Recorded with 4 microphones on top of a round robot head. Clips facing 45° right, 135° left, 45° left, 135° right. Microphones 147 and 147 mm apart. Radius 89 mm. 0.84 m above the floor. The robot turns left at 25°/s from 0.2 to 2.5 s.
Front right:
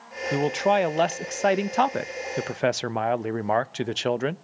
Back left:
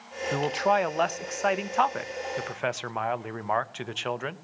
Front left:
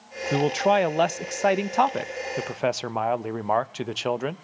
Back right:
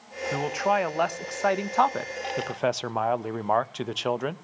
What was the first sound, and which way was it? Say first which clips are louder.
A man speaking: front right 3 dB, front left 5 dB; 15° left.